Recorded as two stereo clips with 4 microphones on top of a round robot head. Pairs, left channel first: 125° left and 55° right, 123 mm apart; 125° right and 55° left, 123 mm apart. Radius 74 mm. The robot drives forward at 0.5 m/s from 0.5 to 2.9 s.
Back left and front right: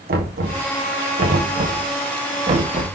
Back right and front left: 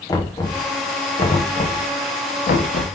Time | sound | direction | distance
0.1 | knocking | 60° right | 1.5 m